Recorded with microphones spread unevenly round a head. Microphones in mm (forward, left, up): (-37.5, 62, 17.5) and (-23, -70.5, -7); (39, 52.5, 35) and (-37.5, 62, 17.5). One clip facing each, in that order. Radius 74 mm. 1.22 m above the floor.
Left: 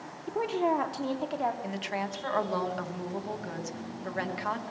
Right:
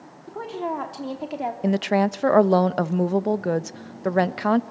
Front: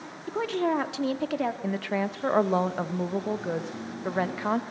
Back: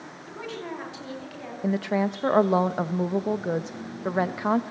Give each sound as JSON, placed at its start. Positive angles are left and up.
{"t": 0.3, "sound": "a woman speaking", "azimuth_deg": 25, "distance_m": 3.0}
{"t": 1.6, "sound": "a woman speaking", "azimuth_deg": -105, "distance_m": 0.9}